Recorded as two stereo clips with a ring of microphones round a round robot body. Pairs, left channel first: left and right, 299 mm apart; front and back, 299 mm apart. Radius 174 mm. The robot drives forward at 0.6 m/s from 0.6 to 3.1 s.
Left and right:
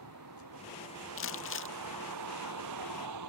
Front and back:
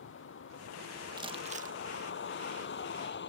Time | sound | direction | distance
0.0 | a vehicle | 45° right | ?
1.2 | crumpling | 110° left | ?